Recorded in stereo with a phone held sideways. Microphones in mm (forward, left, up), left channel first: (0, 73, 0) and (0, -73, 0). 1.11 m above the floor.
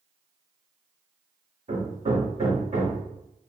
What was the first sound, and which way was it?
Hammering, 50° right (ahead or behind).